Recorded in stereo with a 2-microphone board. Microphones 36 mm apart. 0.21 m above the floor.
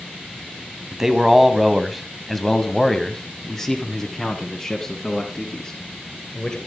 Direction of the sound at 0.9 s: 10° right (ahead or behind).